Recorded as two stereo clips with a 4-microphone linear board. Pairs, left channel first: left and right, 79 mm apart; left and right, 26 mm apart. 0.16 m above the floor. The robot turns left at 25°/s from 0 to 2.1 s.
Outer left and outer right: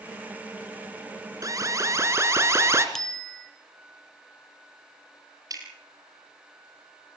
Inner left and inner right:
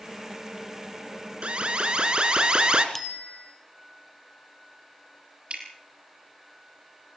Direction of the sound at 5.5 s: 50° right (ahead or behind).